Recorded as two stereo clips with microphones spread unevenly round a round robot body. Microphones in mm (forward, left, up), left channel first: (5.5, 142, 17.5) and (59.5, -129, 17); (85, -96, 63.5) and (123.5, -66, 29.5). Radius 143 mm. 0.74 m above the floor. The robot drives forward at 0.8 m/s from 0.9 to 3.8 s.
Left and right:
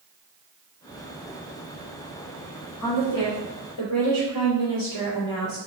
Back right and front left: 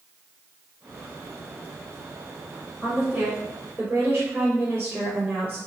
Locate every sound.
2.8 s a woman speaking: 120° left, 2 m; by 5.6 s 135° left, 2.5 m